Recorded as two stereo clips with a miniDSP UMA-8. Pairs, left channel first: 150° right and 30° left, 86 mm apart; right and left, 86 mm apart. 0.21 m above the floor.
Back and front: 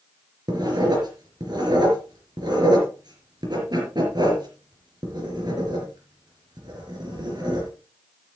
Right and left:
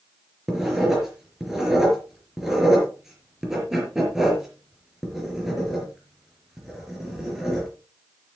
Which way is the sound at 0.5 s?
5° left.